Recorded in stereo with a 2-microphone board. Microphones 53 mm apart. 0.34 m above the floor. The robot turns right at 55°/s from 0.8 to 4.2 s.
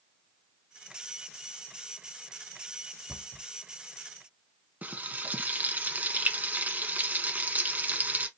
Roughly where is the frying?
Right.